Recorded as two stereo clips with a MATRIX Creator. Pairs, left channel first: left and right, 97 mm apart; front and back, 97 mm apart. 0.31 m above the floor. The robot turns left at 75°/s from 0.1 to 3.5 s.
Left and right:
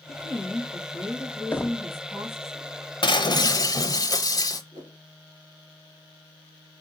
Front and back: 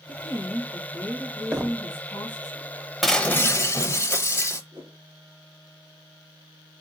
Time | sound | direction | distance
0.1 | a woman speaking | 140° left | 1.8 m
1.5 | knocking | 120° left | 0.6 m
3.0 | breaking glass | 90° left | 0.7 m
4.7 | a whoosh | 130° right | 2.5 m